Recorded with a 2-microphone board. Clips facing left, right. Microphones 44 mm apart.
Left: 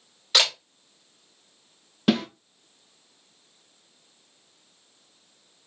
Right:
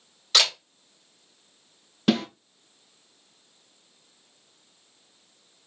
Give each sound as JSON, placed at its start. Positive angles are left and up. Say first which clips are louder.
{"t": 0.3, "sound": "a camera shutter", "louder": "even", "side_deg": 5, "distance_m": 2.5}
{"t": 2.1, "sound": "a snare drum", "louder": "even", "side_deg": 0, "distance_m": 3.0}